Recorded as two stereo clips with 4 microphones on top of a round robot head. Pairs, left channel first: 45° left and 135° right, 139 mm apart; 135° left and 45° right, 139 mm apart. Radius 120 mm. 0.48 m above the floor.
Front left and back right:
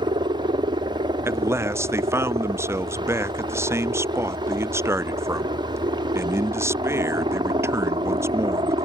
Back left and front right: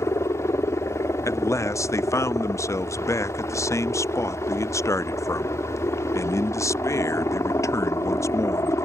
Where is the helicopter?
165° right.